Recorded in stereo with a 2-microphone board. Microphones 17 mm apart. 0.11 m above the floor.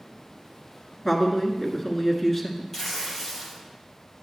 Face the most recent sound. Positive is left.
turn(degrees=15)  # may be behind; listen again after turning